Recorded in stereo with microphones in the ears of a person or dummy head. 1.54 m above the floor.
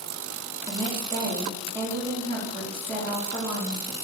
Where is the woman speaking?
25° right (ahead or behind), 1.5 m.